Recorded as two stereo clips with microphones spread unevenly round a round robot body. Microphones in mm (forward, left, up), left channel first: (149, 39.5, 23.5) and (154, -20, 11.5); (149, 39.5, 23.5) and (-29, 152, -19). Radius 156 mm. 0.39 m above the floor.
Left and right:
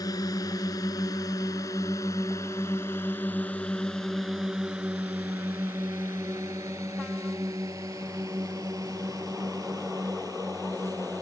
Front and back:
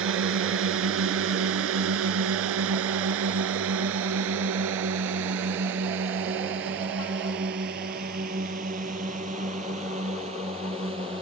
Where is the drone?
135° left; by 11.2 s 140° right.